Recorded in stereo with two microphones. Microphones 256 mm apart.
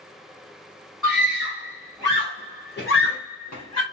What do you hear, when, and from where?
1.0 s a scream: centre (ahead or behind), 1.4 m; by 3.8 s 75° left (ahead or behind), 0.7 m